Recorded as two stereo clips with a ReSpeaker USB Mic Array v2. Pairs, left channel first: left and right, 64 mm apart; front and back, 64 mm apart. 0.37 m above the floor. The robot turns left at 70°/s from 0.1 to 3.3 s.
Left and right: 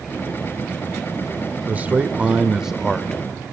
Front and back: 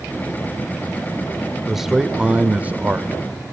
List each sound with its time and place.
1.7 s a man speaking: 90° right, 1.1 m; by 3.2 s 160° left, 1.1 m